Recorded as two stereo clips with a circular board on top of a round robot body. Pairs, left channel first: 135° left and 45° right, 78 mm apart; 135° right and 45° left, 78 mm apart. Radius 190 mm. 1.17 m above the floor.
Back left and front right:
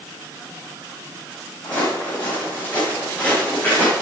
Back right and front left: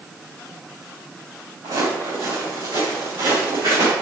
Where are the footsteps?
75° left, 6 m; by 3.9 s 70° left, 4.5 m.